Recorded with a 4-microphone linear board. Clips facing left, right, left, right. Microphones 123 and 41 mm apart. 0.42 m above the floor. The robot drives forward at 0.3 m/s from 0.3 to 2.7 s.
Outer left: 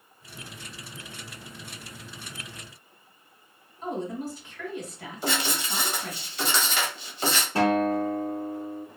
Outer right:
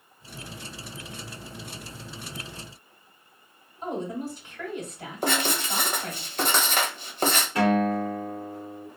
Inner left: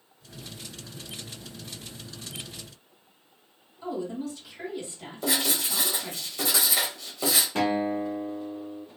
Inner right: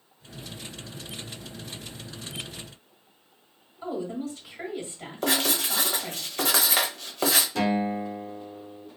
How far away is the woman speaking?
About 1.9 m.